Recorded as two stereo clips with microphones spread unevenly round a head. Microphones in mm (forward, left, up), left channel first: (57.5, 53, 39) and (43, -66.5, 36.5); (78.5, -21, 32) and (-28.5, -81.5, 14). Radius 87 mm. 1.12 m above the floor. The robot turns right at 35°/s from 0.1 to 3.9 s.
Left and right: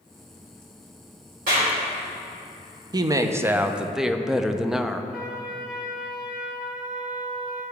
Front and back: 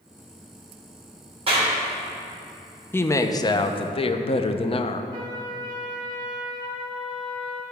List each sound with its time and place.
1.5 s a clap: 110° right, 2.5 m; by 1.7 s 100° right, 2.5 m
2.9 s a woman speaking: 45° right, 0.6 m; by 5.0 s 15° right, 0.6 m
5.1 s a trumpet: straight behind, 0.8 m